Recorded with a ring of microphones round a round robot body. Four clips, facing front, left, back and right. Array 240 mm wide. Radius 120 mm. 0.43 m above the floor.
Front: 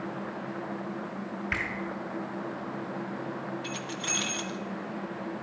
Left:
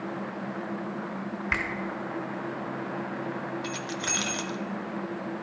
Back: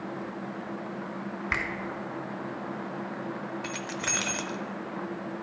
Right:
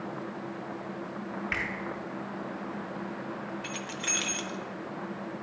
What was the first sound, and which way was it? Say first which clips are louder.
A finger snap: left 5 dB, back 2 dB; 150° left.